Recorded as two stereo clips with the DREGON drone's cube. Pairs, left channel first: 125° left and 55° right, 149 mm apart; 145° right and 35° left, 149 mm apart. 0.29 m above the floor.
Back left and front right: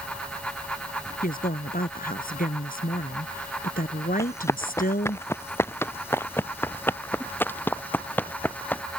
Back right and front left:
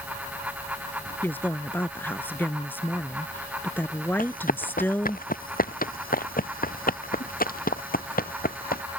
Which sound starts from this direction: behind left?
A woman speaking, at 1.2 s.